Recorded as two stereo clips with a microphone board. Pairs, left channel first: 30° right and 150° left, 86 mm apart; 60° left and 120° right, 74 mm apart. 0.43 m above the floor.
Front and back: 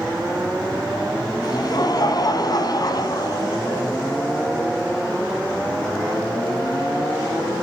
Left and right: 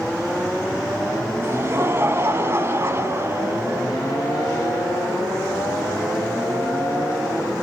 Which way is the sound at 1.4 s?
65° right.